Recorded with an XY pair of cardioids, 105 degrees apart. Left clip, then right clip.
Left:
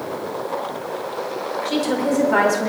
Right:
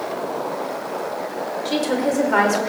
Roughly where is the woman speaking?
Ahead.